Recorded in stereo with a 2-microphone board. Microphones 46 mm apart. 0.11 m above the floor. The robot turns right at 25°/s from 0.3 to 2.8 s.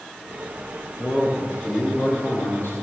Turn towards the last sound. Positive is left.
turn(degrees=60)